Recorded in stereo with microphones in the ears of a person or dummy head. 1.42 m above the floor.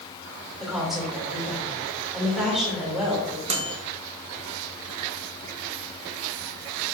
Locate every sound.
0.6 s a woman speaking: centre (ahead or behind), 2.5 m
3.5 s a microwave: 35° right (ahead or behind), 0.7 m